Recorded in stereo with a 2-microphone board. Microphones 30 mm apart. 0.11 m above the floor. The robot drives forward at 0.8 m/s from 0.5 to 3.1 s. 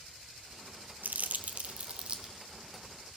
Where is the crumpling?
65° right (ahead or behind), 0.7 m; by 2.3 s 30° right (ahead or behind), 1.3 m.